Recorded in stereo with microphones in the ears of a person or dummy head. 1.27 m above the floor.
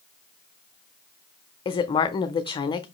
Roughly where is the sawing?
I don't hear sawing.